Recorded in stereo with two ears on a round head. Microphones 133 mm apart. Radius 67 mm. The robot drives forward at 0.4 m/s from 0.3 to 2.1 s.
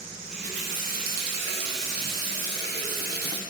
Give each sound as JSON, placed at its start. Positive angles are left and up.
{"t": 0.3, "sound": "a running tap", "side_deg": -45, "distance_m": 0.8}